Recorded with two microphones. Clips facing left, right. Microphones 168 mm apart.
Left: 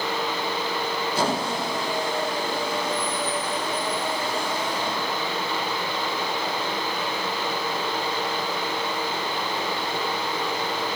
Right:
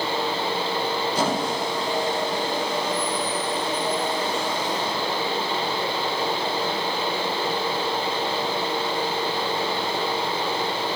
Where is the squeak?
15° right (ahead or behind), 6.5 m.